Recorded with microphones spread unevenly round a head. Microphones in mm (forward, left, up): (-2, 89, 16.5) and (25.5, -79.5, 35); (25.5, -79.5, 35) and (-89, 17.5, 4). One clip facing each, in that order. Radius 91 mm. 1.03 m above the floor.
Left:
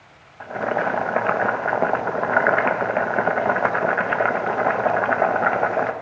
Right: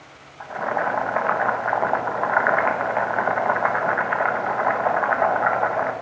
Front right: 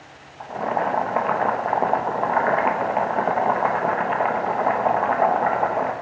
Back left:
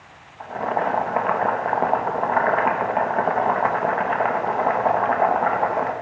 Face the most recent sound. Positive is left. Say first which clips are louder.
# left 2 dB, even
turn(degrees=50)